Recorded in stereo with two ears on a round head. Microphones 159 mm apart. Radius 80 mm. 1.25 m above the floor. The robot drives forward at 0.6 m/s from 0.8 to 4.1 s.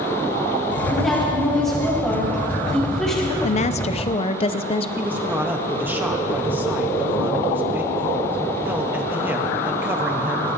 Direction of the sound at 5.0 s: 10° right (ahead or behind).